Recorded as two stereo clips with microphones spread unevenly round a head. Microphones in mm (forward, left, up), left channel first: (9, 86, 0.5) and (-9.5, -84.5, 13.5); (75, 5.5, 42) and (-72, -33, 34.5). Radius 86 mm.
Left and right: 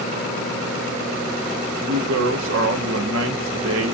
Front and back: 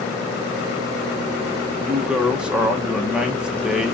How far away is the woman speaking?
About 1.3 m.